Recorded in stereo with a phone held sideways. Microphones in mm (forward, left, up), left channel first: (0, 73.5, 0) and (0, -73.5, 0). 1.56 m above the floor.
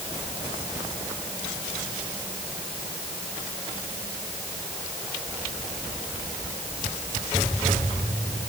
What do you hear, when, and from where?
Only background noise.